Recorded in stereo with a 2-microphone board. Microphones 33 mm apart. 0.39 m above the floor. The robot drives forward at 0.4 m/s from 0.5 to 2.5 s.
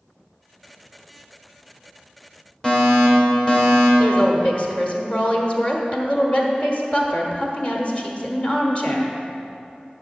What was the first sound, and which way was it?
A fire alarm, 25° left (ahead or behind).